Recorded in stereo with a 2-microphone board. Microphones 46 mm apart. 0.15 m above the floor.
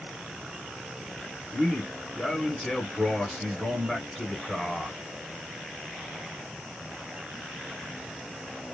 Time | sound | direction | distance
1.5 | a man speaking | 5° left (ahead or behind) | 1.1 m